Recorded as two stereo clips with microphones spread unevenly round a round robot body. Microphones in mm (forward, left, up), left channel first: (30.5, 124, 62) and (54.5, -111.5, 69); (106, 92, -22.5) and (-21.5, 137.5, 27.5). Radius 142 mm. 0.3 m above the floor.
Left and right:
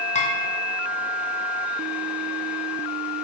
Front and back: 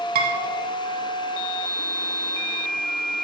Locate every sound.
0.1 s dishes clattering: 160° left, 1.7 m